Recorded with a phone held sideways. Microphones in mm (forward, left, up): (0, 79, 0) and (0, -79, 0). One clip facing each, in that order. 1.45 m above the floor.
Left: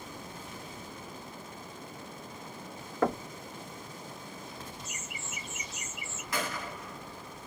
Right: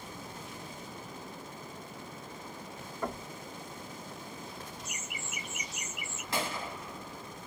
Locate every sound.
3.0 s knocking: 80° left, 0.5 m
4.8 s laughter: 20° right (ahead or behind), 1.3 m
6.3 s a gunshot: 25° right (ahead or behind), 1.3 m